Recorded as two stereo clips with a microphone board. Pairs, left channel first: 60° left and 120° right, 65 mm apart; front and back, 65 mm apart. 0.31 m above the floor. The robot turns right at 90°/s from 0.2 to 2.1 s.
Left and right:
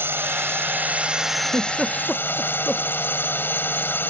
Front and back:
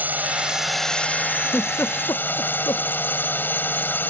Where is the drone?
140° right; by 4.1 s 30° left.